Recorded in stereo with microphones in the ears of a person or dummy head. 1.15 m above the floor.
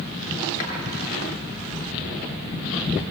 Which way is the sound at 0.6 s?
40° left (ahead or behind).